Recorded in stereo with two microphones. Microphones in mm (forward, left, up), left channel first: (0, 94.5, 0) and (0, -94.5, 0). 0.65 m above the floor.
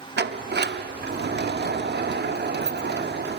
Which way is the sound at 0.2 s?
65° right (ahead or behind).